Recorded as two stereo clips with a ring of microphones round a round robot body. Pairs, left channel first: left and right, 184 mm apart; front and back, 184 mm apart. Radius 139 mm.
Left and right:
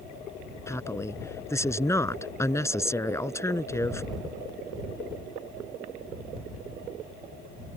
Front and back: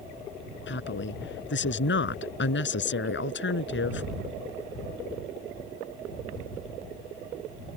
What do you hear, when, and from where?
0.7 s a woman speaking: 15° left